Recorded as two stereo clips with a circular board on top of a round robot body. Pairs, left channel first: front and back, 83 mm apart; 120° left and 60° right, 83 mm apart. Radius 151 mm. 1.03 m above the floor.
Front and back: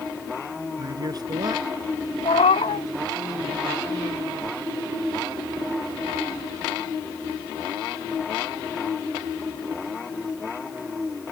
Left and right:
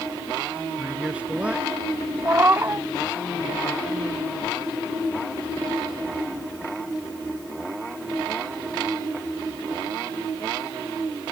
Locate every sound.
0.8 s a man speaking: 140° right
2.2 s a cat meowing: 5° left